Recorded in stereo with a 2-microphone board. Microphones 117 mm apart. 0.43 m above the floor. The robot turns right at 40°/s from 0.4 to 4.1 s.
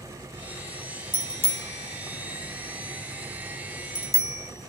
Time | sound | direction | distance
1.1 | a bicycle bell | 35° right (ahead or behind) | 2.5 m